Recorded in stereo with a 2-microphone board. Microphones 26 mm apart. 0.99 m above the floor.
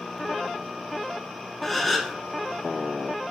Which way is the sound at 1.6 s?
5° left (ahead or behind).